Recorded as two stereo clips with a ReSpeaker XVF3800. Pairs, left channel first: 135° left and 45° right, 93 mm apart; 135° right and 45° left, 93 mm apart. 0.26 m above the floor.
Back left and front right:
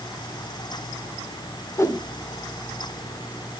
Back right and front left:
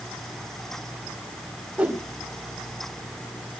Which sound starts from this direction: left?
A whoosh, at 1.8 s.